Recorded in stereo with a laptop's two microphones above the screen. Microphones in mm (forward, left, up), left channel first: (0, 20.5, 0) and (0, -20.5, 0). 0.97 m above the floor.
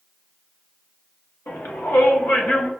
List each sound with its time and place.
1.5 s a shout: 65° left (ahead or behind), 0.9 m; by 2.7 s 50° left (ahead or behind), 1.2 m